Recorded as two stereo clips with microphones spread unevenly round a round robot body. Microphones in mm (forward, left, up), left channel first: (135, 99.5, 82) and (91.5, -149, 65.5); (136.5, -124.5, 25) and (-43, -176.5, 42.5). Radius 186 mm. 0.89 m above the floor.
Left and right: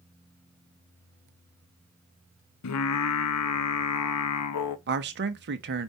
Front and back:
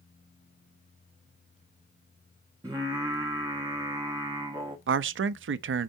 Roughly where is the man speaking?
Behind right.